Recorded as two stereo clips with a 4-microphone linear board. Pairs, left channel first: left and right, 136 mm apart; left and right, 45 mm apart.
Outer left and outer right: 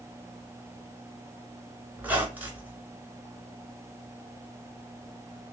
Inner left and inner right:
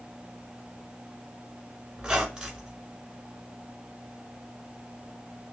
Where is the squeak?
10° right (ahead or behind), 1.2 m.